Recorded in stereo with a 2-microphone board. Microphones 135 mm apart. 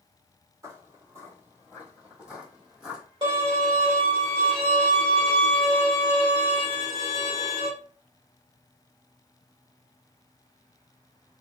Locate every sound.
0.6 s footsteps: 25° right (ahead or behind), 1.5 m; by 3.0 s centre (ahead or behind), 2 m
3.2 s a violin: 40° right (ahead or behind), 1.6 m